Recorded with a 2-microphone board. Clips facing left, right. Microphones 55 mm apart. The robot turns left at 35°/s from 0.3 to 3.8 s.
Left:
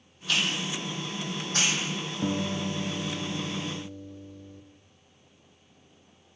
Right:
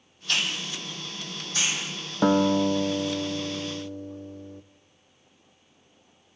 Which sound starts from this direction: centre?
A hiss, at 0.3 s.